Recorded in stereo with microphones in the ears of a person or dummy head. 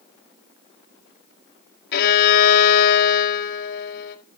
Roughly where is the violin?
Left.